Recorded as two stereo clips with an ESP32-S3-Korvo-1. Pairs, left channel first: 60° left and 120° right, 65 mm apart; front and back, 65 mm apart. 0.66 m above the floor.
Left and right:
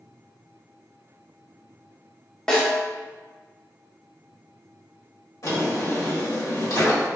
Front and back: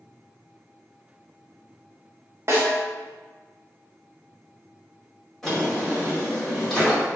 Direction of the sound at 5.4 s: 85° left.